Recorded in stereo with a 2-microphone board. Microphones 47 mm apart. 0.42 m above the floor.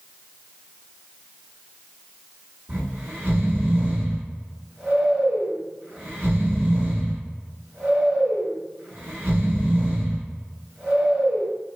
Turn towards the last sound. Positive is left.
turn(degrees=-45)  # may be behind; listen again after turning